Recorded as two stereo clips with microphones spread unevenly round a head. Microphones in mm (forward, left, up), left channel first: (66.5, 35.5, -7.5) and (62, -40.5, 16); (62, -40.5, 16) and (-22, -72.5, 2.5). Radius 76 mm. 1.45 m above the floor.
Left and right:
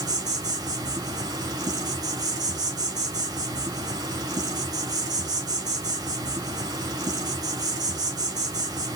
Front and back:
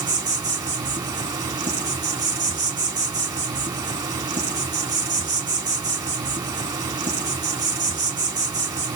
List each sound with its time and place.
0.0 s an insect: 110° right, 2.5 m